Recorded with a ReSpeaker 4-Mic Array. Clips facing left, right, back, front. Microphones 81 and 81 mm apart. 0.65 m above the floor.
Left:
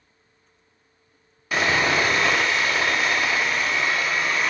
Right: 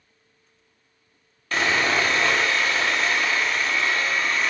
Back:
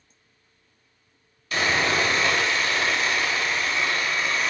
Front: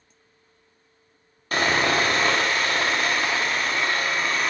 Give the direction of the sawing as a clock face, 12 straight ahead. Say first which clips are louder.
Left 1 dB, front 2 dB; 12 o'clock.